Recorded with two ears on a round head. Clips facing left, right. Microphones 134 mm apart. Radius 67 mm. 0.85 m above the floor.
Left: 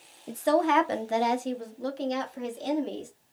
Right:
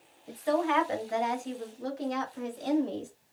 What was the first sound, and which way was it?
A woman speaking, 55° left (ahead or behind).